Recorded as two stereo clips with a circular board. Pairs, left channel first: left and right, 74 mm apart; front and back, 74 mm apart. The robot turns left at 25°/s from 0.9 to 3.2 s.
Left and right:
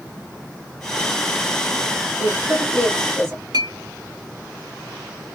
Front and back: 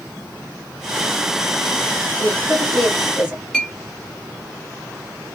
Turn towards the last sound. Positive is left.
turn(degrees=-80)